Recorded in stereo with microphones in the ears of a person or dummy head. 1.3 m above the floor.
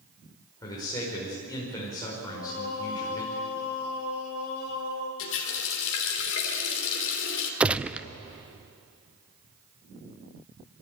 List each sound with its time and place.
0.6 s a man speaking: 25° left (ahead or behind), 5 m
2.2 s singing: 70° left (ahead or behind), 3 m
5.2 s a running tap: 75° left (ahead or behind), 3 m
7.6 s a gunshot: 10° right (ahead or behind), 0.6 m